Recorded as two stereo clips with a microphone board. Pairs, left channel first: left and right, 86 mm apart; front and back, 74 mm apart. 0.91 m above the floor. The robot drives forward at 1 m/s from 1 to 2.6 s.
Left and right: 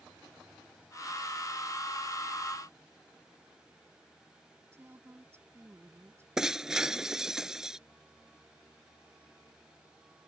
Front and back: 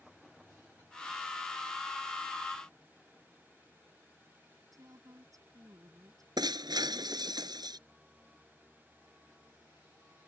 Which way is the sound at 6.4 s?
175° right.